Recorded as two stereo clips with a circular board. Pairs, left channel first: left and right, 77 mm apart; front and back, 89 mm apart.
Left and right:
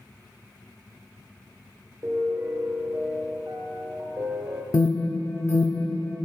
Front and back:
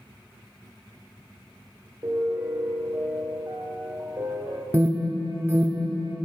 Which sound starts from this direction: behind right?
A piano, at 2.0 s.